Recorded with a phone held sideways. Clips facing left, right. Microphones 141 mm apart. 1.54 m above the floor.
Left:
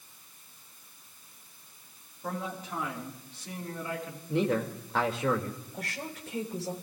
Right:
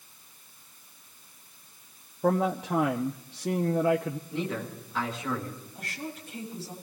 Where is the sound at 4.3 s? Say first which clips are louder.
Left 8 dB; 70° left (ahead or behind), 2.5 m.